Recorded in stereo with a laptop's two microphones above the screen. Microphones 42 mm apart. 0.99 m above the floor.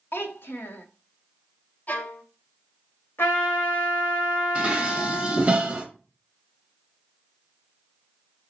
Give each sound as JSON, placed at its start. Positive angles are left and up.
{"t": 0.1, "sound": "a child speaking", "side_deg": 65, "distance_m": 0.7}
{"t": 1.9, "sound": "a violin", "side_deg": 45, "distance_m": 0.6}
{"t": 3.2, "sound": "a trumpet", "side_deg": 70, "distance_m": 1.7}
{"t": 4.5, "sound": "dishes clattering", "side_deg": -30, "distance_m": 0.7}